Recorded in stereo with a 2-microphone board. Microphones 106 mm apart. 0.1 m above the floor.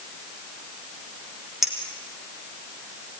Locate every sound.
1.6 s a clink: 5° right (ahead or behind), 3.5 m